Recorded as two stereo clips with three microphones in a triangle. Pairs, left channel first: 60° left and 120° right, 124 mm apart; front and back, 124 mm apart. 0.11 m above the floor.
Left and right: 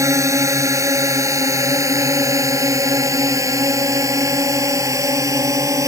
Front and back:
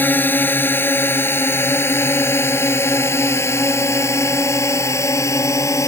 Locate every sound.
0.0 s a drone: 65° right; by 5.9 s 60° right